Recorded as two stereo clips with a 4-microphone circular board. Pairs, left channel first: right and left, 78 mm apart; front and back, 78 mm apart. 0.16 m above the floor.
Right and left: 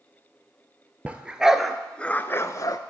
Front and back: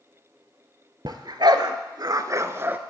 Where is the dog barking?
160° left, 1.0 m; by 2.8 s 120° right, 0.7 m.